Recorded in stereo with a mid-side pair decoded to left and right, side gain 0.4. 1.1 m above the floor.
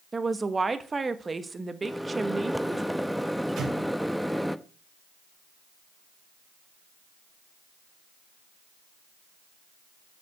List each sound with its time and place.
0.1 s a woman speaking: 30° right, 1.5 m
1.8 s a microwave: straight ahead, 0.8 m
3.6 s an explosion: 60° right, 3 m